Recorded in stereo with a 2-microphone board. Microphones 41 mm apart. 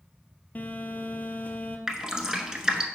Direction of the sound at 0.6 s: 40° left (ahead or behind).